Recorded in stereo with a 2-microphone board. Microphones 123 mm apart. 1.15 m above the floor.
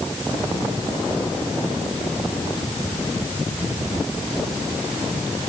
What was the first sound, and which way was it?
Only background noise.